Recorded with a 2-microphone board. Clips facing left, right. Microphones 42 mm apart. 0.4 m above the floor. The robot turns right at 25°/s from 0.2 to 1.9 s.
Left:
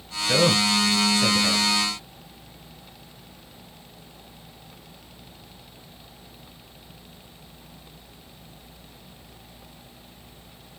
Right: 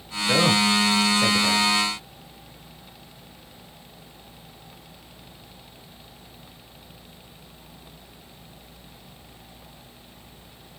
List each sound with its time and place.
0.3 s a man speaking: 45° right (ahead or behind), 1.5 m; by 1.7 s 20° right (ahead or behind), 1.5 m